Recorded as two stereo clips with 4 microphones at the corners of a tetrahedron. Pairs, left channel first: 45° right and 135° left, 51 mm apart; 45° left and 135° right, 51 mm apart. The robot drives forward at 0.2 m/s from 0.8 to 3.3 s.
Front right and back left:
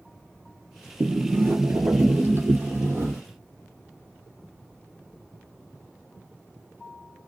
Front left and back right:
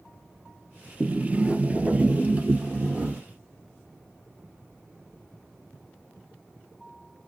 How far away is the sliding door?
About 0.6 m.